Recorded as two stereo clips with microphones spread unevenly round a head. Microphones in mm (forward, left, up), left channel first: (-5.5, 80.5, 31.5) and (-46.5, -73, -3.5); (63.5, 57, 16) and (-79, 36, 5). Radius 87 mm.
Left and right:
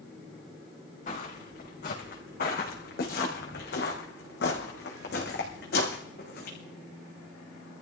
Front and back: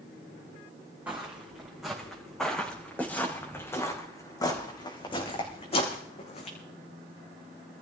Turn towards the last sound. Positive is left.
turn(degrees=45)